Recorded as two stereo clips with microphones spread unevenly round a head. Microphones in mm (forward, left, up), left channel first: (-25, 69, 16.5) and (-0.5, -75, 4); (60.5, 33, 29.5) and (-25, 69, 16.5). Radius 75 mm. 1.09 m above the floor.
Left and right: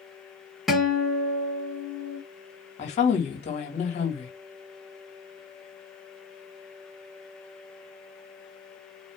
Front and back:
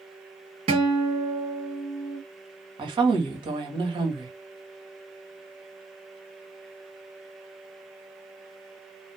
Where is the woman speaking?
145° left, 1.5 m.